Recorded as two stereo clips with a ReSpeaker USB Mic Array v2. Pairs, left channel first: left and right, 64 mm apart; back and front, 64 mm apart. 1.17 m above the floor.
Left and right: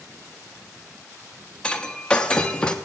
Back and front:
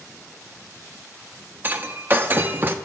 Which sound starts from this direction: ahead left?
Breaking glass, at 1.6 s.